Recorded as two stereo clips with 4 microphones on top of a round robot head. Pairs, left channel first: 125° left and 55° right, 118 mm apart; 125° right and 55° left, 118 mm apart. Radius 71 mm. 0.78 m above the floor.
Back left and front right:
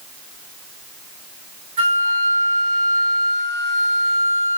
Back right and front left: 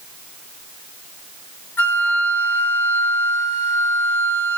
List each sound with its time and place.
1.8 s a flute: 55° right, 2.5 m